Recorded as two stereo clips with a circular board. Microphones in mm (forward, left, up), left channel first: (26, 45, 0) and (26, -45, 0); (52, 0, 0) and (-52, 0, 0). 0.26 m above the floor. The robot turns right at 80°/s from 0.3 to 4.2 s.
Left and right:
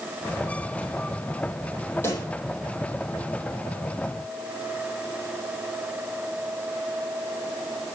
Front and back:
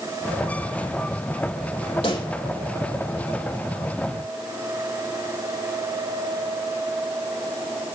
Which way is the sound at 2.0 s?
25° left.